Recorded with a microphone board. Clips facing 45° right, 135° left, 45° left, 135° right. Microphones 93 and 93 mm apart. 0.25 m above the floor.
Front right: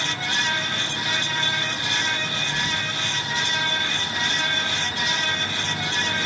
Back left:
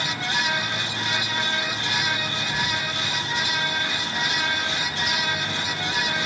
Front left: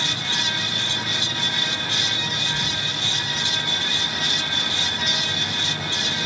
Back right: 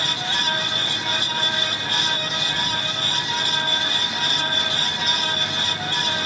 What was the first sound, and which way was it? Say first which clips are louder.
Whispering: back left 2 dB, back right 2 dB; 95° left.